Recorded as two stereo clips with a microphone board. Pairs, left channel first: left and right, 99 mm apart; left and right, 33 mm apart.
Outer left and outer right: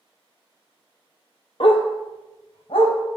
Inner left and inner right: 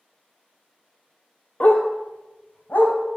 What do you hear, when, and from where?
1.6 s a dog barking: 60° left (ahead or behind), 1.1 m; by 3.0 s 65° left (ahead or behind), 2.5 m